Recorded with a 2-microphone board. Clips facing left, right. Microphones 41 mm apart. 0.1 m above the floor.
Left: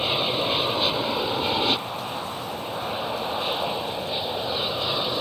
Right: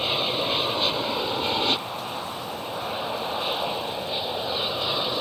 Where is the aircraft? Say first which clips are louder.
Left 1 dB; 5° left (ahead or behind); by 5.2 s centre (ahead or behind).